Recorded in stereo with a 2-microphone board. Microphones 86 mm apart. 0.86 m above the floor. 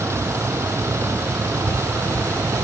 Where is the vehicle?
30° right (ahead or behind).